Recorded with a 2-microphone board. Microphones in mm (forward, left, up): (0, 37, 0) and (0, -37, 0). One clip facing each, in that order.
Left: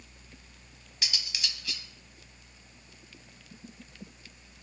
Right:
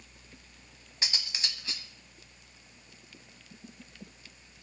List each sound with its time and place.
1.0 s cutlery clinking: 30° right (ahead or behind), 1.9 m